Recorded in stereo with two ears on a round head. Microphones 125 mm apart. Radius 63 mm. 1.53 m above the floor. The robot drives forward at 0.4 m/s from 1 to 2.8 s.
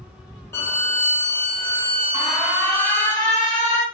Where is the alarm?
25° left (ahead or behind), 1.5 m; by 3.8 s 20° left (ahead or behind), 1.8 m.